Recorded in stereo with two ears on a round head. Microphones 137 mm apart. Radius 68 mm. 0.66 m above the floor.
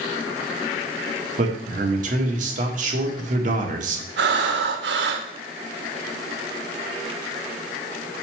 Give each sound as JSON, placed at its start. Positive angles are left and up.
{"t": 1.4, "sound": "a man speaking", "side_deg": -50, "distance_m": 1.5}
{"t": 4.2, "sound": "breathing", "side_deg": -80, "distance_m": 0.9}